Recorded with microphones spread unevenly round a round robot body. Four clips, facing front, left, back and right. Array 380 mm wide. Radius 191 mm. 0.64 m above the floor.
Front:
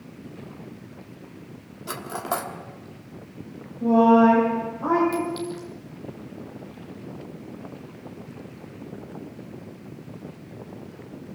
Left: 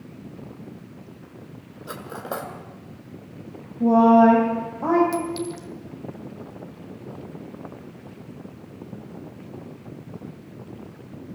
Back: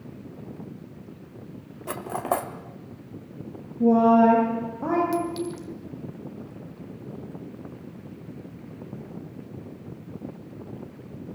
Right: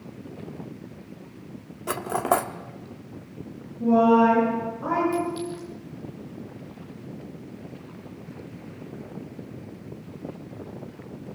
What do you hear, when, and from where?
1.9 s cutlery clinking: 105° right, 0.9 m
3.8 s a woman speaking: 160° left, 3.5 m
5.1 s a clink: 150° left, 1.5 m